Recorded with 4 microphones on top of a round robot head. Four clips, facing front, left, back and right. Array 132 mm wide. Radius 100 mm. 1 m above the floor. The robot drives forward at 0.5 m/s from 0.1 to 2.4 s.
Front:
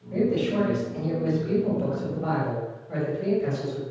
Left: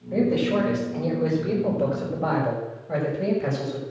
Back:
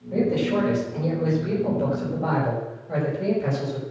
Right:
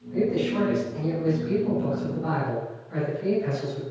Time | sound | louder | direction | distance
0.1 | a man speaking | left 3 dB, back 2 dB | 115° left | 5 m